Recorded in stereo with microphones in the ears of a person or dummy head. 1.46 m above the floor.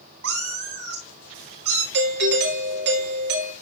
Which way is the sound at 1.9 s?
60° right (ahead or behind).